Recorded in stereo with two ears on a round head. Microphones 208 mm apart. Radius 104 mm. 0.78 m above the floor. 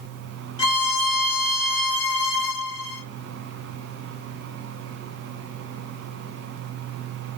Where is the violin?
60° left (ahead or behind), 1.2 m.